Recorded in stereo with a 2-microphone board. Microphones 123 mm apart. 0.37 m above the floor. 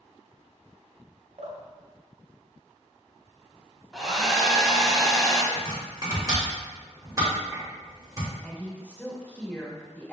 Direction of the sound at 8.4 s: 15° left (ahead or behind).